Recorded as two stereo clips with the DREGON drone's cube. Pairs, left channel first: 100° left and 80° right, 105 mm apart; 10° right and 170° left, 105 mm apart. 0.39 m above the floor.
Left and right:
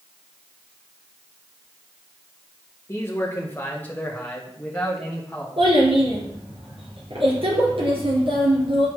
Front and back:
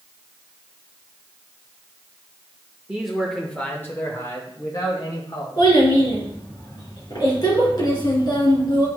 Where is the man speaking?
100° left, 1.0 m; by 5.5 s 20° left, 2.0 m.